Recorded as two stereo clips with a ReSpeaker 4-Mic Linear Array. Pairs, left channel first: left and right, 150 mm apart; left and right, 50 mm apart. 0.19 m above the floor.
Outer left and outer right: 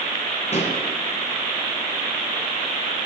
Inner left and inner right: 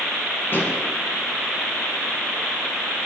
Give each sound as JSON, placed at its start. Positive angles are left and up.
{"t": 0.5, "sound": "a pop", "side_deg": 45, "distance_m": 1.6}